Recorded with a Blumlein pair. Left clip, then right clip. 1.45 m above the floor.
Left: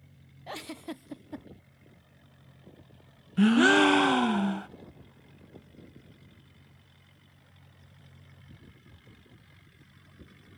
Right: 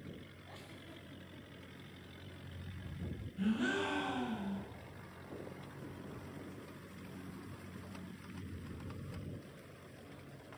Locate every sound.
0.5 s a giggle: 50° left, 0.6 m
3.4 s a gasp: 40° left, 0.6 m